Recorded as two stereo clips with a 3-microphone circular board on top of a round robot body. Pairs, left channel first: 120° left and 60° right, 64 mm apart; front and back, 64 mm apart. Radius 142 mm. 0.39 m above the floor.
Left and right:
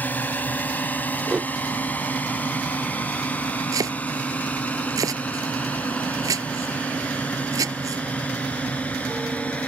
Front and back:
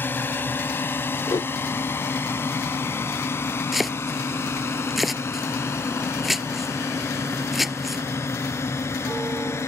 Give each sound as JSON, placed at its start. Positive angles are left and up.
{"t": 0.0, "sound": "a drone", "azimuth_deg": 60}
{"t": 1.3, "sound": "a whoosh", "azimuth_deg": 15}
{"t": 3.7, "sound": "chopping", "azimuth_deg": -90}